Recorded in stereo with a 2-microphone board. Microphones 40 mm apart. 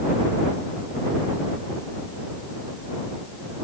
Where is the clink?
No clink in this recording.